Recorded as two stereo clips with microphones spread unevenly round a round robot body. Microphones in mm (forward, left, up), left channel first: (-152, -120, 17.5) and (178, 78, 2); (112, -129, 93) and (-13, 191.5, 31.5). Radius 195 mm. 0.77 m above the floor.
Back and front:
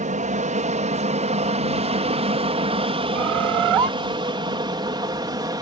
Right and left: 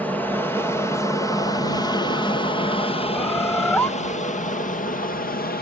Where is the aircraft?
35° left; by 5.6 s 30° right.